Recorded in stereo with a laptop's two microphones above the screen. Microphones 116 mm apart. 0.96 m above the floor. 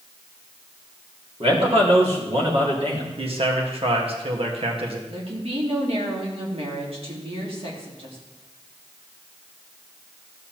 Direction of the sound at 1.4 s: 60° right (ahead or behind).